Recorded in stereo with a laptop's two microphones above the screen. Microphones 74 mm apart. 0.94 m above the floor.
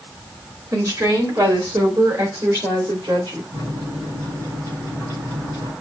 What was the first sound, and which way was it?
A woman speaking, 50° right (ahead or behind).